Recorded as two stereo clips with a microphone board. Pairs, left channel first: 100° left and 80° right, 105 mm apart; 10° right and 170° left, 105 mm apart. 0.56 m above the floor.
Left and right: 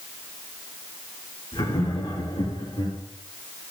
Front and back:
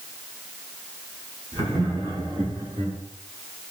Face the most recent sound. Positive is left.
turn(degrees=135)